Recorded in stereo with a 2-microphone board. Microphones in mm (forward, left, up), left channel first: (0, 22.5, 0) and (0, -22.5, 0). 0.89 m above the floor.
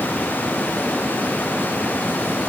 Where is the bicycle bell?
I don't hear a bicycle bell.